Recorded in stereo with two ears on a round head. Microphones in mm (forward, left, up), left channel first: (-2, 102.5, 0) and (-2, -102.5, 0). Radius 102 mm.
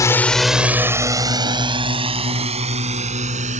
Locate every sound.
0.0 s a drone: 15° left (ahead or behind); by 3.6 s 35° right (ahead or behind)